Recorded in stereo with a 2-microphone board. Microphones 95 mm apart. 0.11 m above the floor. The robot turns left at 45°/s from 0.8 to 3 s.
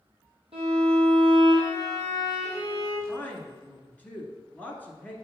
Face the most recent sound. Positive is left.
turn(degrees=20)  # may be behind; listen again after turning